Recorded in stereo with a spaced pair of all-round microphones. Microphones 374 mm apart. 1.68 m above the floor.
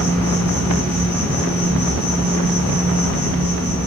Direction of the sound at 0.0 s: 5° right (ahead or behind).